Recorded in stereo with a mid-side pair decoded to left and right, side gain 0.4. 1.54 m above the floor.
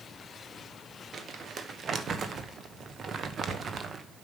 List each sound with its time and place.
1.1 s crumpling: 55° right, 1.2 m